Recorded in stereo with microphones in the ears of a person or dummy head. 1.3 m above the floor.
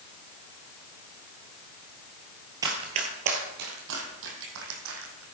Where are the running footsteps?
15° right (ahead or behind), 1.5 m; by 5.2 s 70° right (ahead or behind), 3.5 m.